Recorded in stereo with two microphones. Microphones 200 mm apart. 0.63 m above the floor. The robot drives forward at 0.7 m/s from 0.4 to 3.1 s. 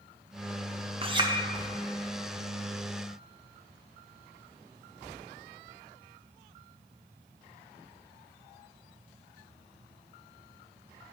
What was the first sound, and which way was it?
A clink, 30° right (ahead or behind).